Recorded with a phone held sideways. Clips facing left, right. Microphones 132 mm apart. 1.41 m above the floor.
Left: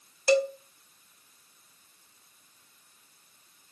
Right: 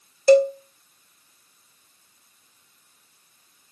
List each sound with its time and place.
0.3 s a cowbell: 40° right (ahead or behind), 0.7 m